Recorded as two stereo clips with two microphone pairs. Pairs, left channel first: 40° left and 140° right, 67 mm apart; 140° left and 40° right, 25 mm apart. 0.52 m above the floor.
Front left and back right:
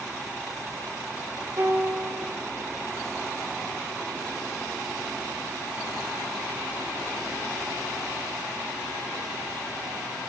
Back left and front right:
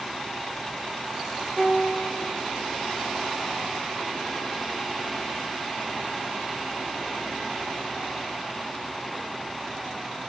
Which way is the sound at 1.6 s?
145° right.